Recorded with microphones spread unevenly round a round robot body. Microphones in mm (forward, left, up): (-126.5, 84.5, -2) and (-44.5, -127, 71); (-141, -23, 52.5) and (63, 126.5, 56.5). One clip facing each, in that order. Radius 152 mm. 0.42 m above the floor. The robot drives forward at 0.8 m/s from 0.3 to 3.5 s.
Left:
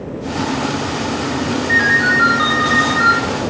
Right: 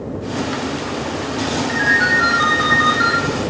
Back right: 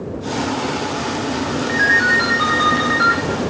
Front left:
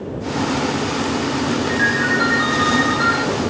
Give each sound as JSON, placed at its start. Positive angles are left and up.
{"t": 1.7, "sound": "a ringtone", "azimuth_deg": 165, "distance_m": 1.1}